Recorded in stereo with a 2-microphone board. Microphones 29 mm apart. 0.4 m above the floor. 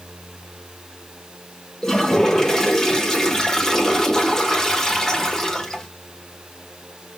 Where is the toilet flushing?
20° left (ahead or behind), 1.3 m.